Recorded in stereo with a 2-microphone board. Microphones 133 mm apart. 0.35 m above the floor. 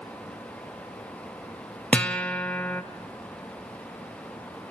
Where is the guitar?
10° left (ahead or behind), 0.8 m.